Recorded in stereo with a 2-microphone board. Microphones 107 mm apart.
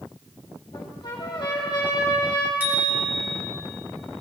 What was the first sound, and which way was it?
A trumpet, 40° left (ahead or behind).